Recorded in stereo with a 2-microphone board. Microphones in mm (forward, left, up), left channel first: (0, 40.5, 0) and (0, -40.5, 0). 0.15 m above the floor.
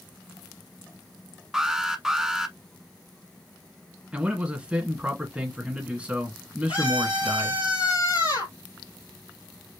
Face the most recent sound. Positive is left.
turn(degrees=65)  # may be behind; listen again after turning